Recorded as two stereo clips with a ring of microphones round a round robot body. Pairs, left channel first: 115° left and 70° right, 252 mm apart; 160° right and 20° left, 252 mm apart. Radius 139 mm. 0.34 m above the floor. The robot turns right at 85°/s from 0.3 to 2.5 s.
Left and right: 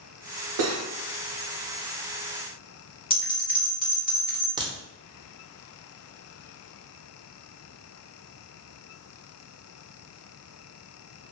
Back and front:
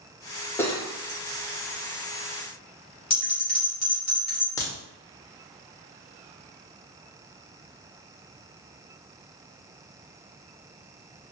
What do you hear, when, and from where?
0.6 s cutlery clinking: 80° right, 0.9 m; by 0.8 s 60° right, 0.9 m
3.1 s a bell: 160° left, 1.9 m
4.6 s a crack: 105° right, 0.9 m